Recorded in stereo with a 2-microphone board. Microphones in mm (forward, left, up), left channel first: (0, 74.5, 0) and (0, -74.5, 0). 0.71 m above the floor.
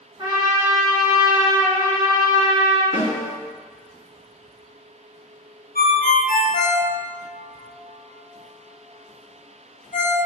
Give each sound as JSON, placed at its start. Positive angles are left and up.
{"t": 0.2, "sound": "a trumpet", "side_deg": -25, "distance_m": 1.2}
{"t": 2.9, "sound": "a snare drum", "side_deg": 15, "distance_m": 1.9}
{"t": 5.8, "sound": "a ringtone", "side_deg": 65, "distance_m": 0.9}